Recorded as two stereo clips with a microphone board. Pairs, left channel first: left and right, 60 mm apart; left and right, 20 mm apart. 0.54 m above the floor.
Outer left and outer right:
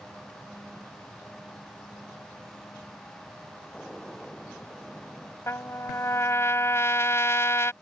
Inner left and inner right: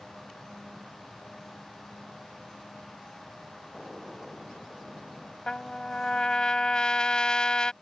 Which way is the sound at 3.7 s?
5° left (ahead or behind).